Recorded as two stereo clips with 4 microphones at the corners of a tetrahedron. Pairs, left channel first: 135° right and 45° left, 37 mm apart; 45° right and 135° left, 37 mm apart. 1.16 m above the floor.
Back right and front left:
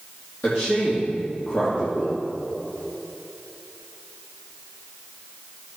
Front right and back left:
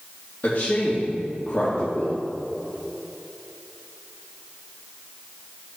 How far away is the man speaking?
About 2 m.